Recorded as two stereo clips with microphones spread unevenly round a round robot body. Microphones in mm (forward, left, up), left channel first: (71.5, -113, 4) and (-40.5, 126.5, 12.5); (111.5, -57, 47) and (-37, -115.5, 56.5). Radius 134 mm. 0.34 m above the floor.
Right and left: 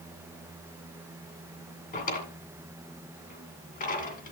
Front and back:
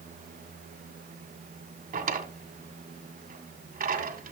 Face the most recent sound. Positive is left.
turn(degrees=-125)